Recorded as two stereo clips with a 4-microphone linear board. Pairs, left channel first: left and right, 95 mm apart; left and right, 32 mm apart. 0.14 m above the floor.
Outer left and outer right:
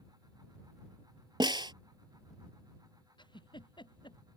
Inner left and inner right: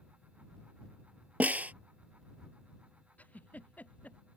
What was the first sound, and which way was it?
A snare drum, 55° right (ahead or behind).